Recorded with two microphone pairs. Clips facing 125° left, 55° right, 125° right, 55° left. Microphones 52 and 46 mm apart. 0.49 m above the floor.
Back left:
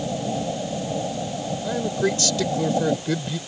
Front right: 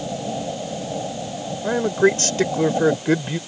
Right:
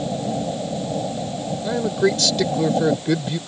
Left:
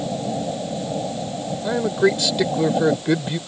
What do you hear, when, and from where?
1.6 s a man speaking: 15° right